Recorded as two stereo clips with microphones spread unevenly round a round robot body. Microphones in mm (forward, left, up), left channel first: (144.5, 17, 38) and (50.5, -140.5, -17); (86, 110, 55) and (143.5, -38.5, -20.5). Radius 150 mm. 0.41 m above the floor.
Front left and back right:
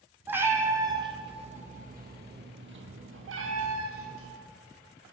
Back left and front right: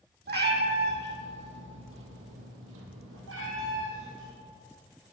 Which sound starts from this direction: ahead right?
A cat meowing, at 0.3 s.